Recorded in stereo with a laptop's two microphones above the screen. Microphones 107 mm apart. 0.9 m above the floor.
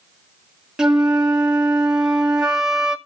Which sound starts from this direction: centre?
A flute, at 0.8 s.